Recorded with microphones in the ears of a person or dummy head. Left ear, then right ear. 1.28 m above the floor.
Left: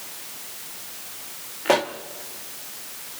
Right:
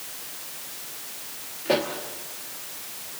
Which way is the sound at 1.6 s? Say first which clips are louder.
Left 4 dB; 30° left (ahead or behind).